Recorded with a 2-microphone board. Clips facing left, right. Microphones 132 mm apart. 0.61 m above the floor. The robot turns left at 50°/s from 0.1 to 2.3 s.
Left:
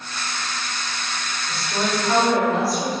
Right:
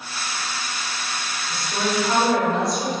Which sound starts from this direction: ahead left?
A woman speaking, at 1.5 s.